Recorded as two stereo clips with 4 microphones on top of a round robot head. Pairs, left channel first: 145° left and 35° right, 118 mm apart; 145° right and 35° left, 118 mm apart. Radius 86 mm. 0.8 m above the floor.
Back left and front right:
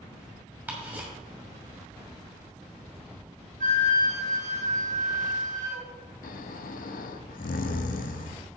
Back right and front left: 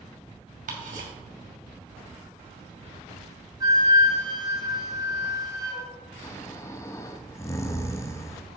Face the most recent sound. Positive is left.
turn(degrees=145)